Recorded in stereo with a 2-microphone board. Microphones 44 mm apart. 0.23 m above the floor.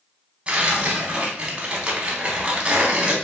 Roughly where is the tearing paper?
Right.